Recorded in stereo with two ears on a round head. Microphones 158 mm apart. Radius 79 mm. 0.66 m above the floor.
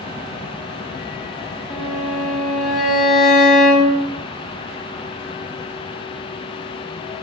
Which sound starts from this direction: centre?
A violin, at 1.7 s.